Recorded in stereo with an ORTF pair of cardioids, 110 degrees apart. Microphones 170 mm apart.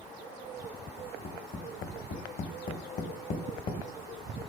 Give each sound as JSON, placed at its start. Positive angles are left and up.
{"t": 1.0, "sound": "tapping", "azimuth_deg": 60, "distance_m": 1.4}